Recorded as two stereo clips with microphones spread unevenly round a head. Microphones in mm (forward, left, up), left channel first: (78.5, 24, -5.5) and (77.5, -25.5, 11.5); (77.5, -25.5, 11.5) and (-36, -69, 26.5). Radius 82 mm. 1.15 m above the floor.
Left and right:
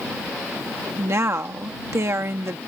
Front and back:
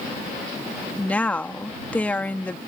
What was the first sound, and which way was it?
A woman speaking, 55° right.